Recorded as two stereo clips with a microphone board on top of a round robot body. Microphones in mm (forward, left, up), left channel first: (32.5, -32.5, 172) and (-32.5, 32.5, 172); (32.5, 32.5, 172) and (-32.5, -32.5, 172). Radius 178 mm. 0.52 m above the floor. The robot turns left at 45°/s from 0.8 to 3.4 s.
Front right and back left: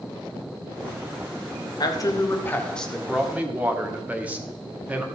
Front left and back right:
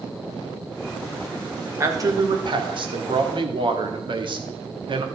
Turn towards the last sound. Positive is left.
turn(degrees=-150)